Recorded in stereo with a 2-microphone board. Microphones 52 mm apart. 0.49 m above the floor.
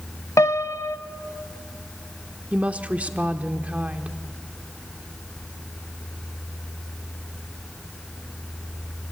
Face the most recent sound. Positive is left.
turn(degrees=-25)  # may be behind; listen again after turning